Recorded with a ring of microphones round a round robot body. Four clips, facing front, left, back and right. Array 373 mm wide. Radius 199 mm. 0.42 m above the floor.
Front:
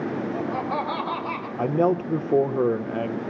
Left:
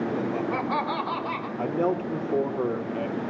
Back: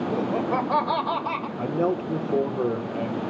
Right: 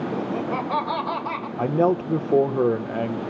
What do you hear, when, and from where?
0.1 s laughter: 175° right, 2.5 m; by 1.5 s 130° right, 2 m
1.6 s a man speaking: 60° right, 1.4 m